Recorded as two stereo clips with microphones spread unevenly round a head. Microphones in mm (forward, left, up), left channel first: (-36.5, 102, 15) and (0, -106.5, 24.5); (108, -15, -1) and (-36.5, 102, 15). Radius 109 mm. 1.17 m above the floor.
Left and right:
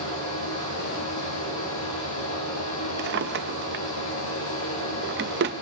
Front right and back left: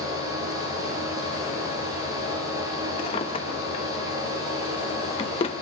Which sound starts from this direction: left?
A fan, at 0.0 s.